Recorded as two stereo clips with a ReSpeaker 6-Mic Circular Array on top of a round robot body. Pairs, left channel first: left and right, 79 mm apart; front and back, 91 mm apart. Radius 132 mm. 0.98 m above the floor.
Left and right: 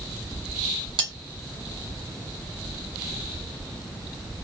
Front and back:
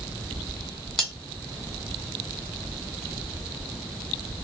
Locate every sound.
1.0 s cutlery clinking: 85° right, 1.7 m